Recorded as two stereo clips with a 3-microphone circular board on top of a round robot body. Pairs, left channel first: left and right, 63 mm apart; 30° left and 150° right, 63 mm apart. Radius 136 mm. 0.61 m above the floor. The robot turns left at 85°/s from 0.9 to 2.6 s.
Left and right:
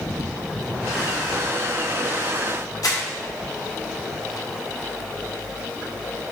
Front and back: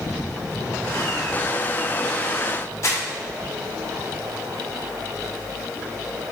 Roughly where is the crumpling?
Left.